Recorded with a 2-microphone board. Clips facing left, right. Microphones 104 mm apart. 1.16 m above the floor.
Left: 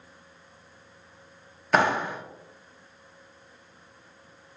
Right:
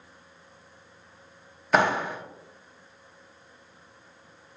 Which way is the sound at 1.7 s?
Centre (ahead or behind).